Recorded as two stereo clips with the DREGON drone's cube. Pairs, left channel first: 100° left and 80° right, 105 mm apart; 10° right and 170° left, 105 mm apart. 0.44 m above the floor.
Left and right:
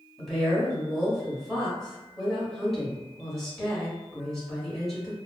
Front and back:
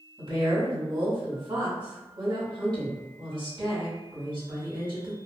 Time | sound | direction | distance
0.2 | a woman speaking | 170° right | 1.5 m